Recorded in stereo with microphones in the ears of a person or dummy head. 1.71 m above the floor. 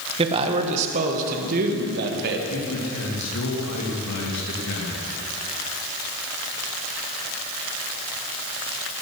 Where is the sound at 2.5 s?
85° left, 3 m.